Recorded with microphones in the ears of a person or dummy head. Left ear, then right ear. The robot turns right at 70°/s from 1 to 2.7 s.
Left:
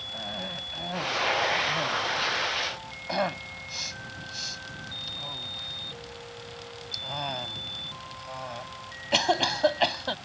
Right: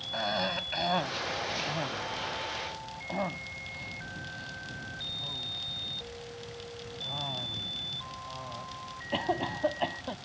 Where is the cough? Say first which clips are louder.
Right 7 dB; 45° right (ahead or behind); by 10.2 s 75° left (ahead or behind).